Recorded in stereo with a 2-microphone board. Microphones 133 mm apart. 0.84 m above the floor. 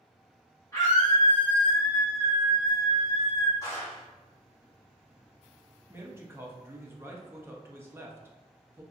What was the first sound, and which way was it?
A scream, 25° left (ahead or behind).